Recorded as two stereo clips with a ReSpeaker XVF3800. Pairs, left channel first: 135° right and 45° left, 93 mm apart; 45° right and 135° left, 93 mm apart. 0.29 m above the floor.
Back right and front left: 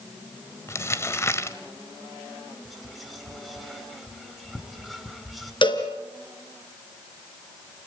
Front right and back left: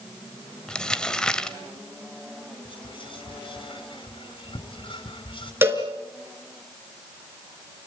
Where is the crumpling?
120° right, 1.3 m.